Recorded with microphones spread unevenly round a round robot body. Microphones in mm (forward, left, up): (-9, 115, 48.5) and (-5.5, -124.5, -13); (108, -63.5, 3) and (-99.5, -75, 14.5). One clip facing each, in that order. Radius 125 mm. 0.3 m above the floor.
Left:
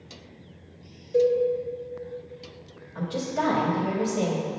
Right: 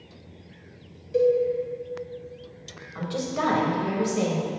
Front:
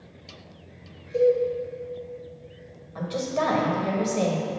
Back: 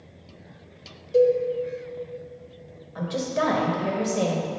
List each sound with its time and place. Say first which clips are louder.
1.1 s a cowbell: right 1 dB, back 2 dB; 145° right, 1.5 m
3.0 s a woman speaking: even, back 1 dB; 95° right, 1.2 m